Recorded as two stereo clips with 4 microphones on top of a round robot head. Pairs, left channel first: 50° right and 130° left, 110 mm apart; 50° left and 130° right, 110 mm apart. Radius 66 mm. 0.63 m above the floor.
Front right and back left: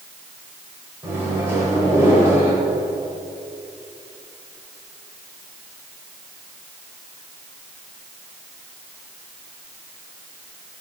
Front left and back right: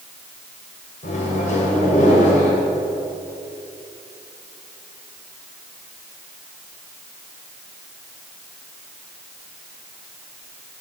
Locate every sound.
1.0 s a microwave: 60° left, 3 m